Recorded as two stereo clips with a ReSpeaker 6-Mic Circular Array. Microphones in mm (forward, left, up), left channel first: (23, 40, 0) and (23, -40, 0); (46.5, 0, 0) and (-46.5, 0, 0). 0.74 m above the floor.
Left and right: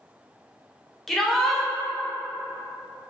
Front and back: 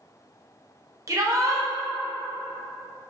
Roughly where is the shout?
Behind.